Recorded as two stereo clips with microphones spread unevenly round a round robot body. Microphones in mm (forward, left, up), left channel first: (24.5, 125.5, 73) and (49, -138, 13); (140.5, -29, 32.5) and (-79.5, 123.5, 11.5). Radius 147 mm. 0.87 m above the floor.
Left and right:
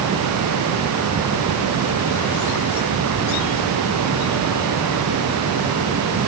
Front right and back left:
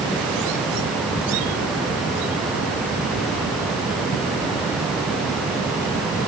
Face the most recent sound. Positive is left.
No sound to turn to.